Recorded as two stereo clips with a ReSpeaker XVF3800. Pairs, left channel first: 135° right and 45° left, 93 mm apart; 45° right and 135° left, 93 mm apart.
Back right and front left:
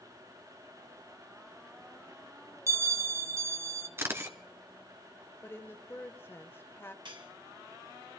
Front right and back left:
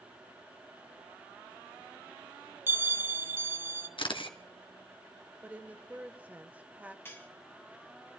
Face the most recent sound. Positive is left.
turn(degrees=20)